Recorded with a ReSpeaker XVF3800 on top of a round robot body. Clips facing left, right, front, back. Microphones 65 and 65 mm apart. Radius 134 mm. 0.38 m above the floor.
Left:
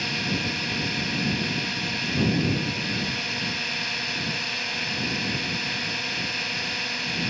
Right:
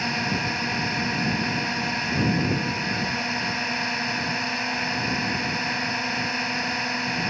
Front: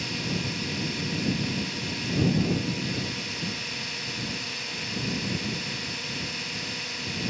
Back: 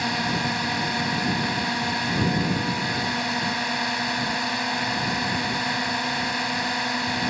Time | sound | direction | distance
0.0 | a drone | 155° right | ?